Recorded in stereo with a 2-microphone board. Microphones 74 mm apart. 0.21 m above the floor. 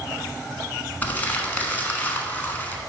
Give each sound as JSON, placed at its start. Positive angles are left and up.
{"t": 1.0, "sound": "crumpling", "side_deg": 25, "distance_m": 1.0}